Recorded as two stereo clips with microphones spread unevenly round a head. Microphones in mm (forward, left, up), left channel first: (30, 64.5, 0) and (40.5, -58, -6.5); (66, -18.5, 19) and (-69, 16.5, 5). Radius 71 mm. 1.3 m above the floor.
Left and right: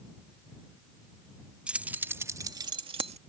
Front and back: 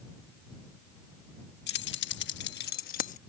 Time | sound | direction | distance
1.7 | keys jangling | 5° right | ?